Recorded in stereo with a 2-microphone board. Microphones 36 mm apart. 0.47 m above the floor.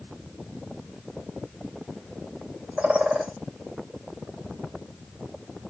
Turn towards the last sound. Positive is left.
turn(degrees=-35)  # may be behind; listen again after turning